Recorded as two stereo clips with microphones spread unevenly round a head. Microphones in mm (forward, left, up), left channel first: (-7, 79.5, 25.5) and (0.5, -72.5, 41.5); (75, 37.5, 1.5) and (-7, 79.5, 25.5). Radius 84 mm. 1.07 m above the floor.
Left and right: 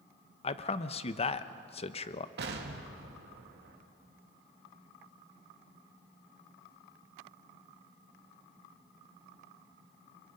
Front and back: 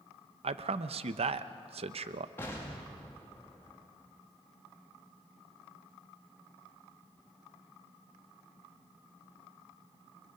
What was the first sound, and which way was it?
A man speaking, 140° left.